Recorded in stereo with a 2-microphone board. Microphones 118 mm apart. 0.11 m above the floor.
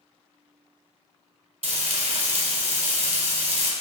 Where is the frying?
70° right (ahead or behind), 1.0 m.